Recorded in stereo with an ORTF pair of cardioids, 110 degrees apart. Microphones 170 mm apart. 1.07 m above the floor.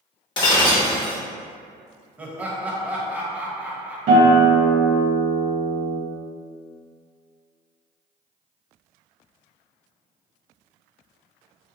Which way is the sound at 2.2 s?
10° right.